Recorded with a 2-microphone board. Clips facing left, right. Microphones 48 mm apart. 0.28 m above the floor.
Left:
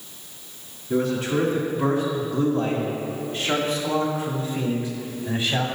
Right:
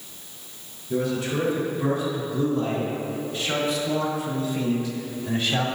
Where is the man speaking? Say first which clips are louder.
Left 3 dB; 40° left (ahead or behind), 3 m; by 5.7 s 5° left (ahead or behind), 1.9 m.